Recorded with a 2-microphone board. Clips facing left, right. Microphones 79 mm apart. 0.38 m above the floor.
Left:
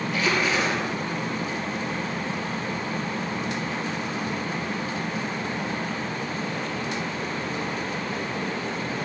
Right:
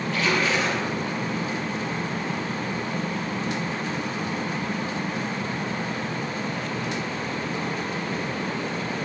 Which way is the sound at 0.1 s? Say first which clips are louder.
Right 1 dB; 10° left (ahead or behind).